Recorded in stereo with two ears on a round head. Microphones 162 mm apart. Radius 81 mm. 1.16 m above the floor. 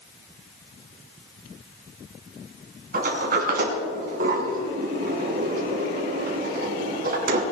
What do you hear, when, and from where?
2.9 s a sliding door: 50° right (ahead or behind), 3 m